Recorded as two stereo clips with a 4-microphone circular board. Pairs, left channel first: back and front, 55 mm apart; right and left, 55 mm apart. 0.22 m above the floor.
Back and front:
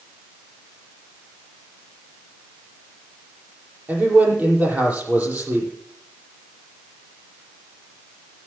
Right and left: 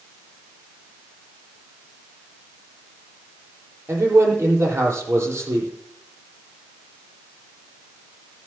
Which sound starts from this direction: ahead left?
A man speaking, at 3.9 s.